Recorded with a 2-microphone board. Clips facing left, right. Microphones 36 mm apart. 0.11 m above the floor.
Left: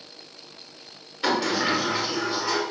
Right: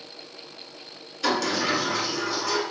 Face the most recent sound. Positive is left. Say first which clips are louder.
# left 1 dB
turn(degrees=25)  # may be behind; listen again after turning